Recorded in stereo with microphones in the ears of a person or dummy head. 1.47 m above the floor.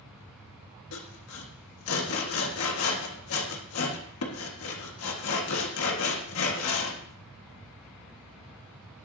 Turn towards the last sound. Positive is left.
turn(degrees=75)  # may be behind; listen again after turning